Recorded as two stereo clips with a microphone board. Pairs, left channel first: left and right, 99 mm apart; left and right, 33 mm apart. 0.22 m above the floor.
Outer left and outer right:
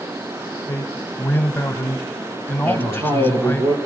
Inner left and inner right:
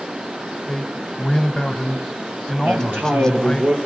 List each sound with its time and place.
0.7 s a man speaking: 20° left (ahead or behind), 1.3 m
2.6 s a man speaking: 75° right (ahead or behind), 4 m